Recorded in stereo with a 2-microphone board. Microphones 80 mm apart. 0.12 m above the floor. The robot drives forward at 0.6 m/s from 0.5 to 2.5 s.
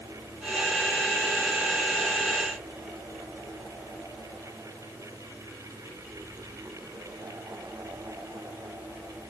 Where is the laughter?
I don't hear laughter.